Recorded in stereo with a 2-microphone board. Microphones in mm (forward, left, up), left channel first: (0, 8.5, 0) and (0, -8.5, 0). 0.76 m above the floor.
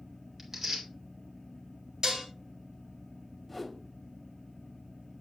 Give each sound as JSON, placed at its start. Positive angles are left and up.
{"t": 0.4, "sound": "tearing paper", "side_deg": -20, "distance_m": 2.0}
{"t": 2.0, "sound": "dishes clattering", "side_deg": -45, "distance_m": 2.5}
{"t": 3.5, "sound": "a whoosh", "side_deg": 5, "distance_m": 0.7}